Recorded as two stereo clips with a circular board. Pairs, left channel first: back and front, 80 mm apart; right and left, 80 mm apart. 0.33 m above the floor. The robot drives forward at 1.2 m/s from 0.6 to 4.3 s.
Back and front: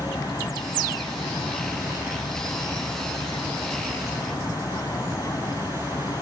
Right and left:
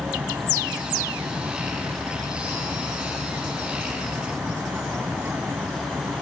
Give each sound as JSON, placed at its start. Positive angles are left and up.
{"t": 0.0, "sound": "an aircraft", "azimuth_deg": 145}